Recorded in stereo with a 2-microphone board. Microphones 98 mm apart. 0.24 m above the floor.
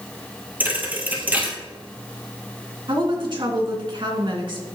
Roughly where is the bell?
I don't hear a bell.